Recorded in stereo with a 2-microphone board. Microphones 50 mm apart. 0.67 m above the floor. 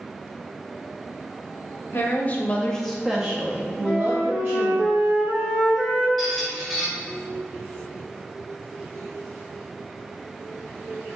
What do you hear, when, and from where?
1.9 s a woman speaking: 45° left (ahead or behind), 0.7 m; by 4.8 s 50° right (ahead or behind), 1.2 m
3.9 s a flute: 10° right (ahead or behind), 1.1 m
6.2 s a squeak: centre (ahead or behind), 1.3 m